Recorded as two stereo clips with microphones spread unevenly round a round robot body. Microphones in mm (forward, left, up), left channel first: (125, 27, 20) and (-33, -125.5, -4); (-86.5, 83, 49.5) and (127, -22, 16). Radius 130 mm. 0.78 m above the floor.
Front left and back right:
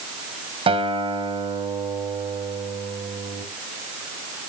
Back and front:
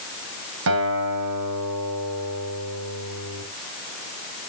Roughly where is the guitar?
Right.